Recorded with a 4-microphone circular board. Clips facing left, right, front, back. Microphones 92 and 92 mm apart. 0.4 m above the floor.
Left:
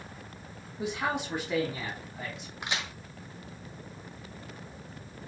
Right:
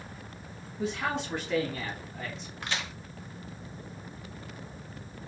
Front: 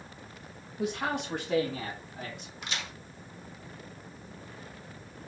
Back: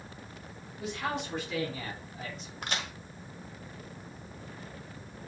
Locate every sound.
0.8 s a man speaking: 20° left, 1.6 m; by 2.5 s 15° left, 3.5 m
2.6 s a crack: 160° left, 1.1 m